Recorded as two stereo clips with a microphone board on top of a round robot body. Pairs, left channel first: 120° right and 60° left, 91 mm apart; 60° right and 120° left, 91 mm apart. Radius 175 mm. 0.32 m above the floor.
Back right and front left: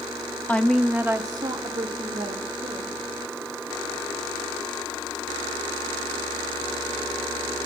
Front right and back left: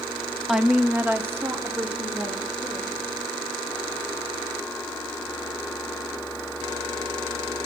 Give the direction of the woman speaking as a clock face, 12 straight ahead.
5 o'clock.